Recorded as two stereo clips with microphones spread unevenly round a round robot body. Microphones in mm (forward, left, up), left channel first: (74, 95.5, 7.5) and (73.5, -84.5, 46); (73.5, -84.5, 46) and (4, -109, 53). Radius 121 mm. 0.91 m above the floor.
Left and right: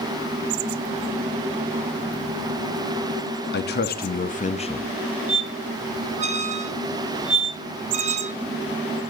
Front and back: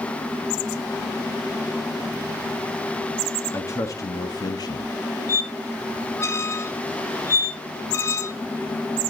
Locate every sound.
3.5 s a man speaking: 80° left, 1.5 m; by 4.9 s 30° left, 1.1 m
5.3 s a squeak: 35° right, 1.1 m